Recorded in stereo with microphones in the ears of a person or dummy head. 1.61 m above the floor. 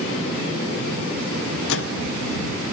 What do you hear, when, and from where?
1.7 s a microwave: 70° left (ahead or behind)